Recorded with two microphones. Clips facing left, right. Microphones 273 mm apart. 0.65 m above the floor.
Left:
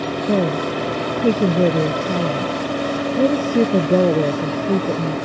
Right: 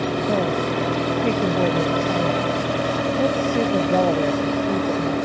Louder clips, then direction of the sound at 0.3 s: Left 6 dB; 40° left (ahead or behind).